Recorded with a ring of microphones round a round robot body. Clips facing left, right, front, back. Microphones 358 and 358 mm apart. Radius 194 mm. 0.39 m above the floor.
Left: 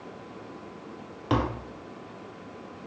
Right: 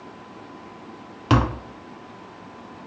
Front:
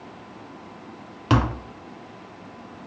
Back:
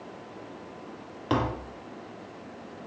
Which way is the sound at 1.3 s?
45° right.